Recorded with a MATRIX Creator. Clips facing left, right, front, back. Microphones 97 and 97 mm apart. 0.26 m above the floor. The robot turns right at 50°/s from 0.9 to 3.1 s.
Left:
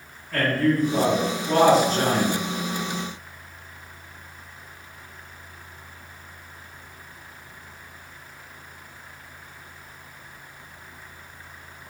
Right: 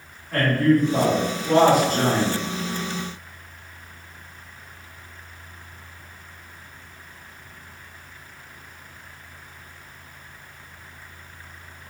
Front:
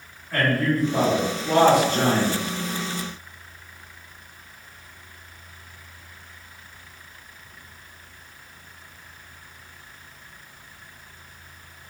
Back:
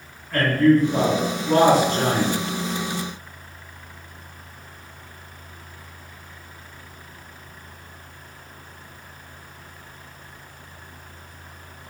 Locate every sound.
0.3 s a man speaking: 65° right, 1.2 m; by 2.4 s 10° left, 1.2 m